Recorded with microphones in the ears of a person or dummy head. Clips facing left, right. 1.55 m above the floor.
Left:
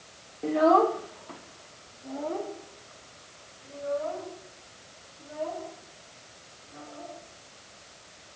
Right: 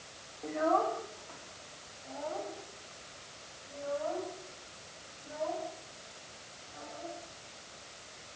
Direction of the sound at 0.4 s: 50° left (ahead or behind).